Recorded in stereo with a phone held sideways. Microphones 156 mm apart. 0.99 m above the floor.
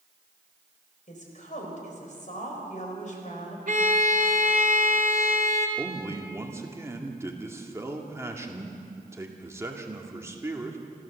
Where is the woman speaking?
55° left (ahead or behind), 5 m.